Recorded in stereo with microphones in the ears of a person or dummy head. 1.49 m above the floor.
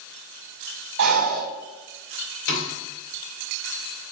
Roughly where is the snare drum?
Left.